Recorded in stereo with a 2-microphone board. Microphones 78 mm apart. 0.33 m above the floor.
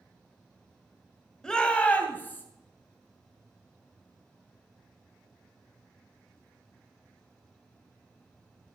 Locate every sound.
1.4 s a shout: 10° left (ahead or behind), 1.6 m; by 2.4 s 25° left (ahead or behind), 2.5 m